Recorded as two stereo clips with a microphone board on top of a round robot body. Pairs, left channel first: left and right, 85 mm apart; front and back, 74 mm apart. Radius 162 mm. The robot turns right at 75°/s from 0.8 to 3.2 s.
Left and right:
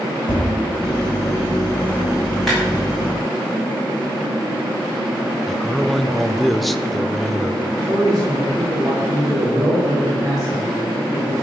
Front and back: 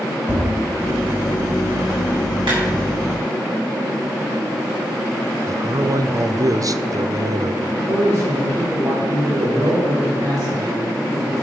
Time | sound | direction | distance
0.3 | tapping | 55° left | 5 m
2.5 | a clap | 175° left | 6 m
5.5 | a man speaking | straight behind | 0.8 m
7.7 | a man speaking | 140° right | 3.5 m